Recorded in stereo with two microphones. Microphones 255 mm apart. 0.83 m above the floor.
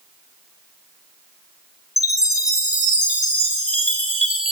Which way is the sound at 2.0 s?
5° right (ahead or behind).